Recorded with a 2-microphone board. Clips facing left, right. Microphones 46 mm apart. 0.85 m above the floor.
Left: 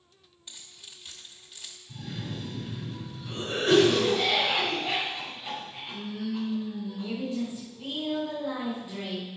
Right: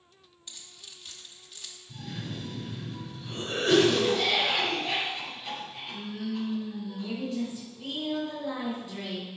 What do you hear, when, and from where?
0.5 s keys jangling: 10° left (ahead or behind), 0.9 m
1.9 s a cough: 5° left (ahead or behind), 3 m